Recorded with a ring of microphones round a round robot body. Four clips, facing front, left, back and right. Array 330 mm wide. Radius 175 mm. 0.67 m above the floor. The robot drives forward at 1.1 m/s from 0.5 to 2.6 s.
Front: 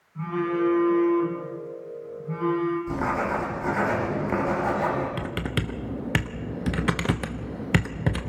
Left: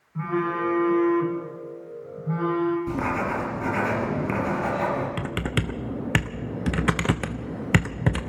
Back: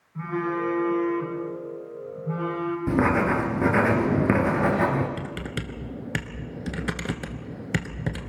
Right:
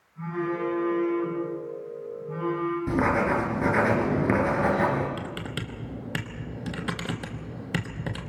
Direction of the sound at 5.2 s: 65° left.